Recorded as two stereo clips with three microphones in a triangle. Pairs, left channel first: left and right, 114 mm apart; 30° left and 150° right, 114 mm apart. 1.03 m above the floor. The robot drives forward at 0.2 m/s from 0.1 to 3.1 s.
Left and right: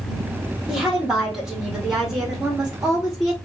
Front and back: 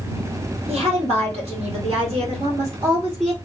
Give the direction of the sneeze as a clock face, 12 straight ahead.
No sneeze in this recording.